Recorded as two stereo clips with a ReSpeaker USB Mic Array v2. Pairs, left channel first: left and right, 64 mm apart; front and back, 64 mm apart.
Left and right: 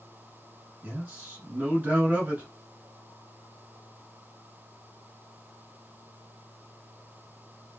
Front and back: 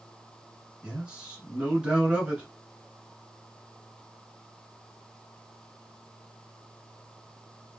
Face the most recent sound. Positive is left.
turn(degrees=-120)